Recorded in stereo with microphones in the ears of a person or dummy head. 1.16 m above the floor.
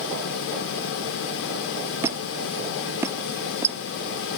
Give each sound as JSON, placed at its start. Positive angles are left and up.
{"t": 2.0, "sound": "a squeak", "side_deg": -10}